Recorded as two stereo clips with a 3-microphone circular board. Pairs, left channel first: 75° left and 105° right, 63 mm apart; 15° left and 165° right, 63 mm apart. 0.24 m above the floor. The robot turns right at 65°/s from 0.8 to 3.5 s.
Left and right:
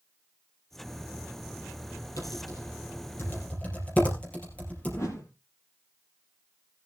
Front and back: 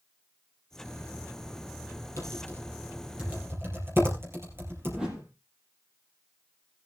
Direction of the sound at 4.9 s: 115° left.